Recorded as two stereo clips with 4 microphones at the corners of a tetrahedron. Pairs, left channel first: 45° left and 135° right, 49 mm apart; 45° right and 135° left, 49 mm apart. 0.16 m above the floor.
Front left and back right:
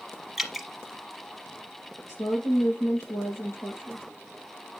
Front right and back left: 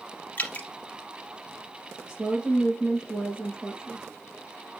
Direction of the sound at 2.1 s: 65° left.